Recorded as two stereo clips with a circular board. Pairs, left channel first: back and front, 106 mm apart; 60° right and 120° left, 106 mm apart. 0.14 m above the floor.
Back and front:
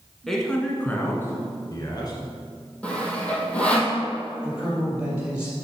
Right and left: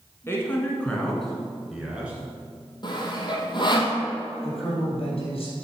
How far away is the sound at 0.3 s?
About 1.3 m.